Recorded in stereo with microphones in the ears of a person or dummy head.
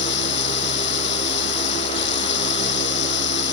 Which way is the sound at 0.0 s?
65° left (ahead or behind).